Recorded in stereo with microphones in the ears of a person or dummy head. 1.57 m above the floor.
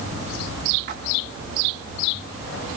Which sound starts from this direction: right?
A splash, at 0.9 s.